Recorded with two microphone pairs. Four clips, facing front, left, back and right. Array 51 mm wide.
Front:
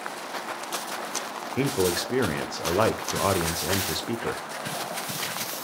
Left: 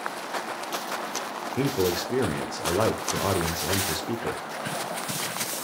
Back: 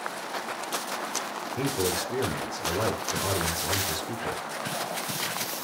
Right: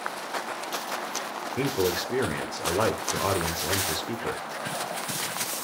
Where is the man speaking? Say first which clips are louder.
Left 1 dB, front 4 dB; 25° right, 1.0 m.